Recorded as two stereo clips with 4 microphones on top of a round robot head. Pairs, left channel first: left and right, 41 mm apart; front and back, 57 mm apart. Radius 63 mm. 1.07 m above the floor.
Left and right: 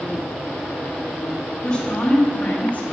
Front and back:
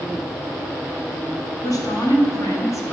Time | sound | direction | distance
1.6 | a woman speaking | 15° left | 2 m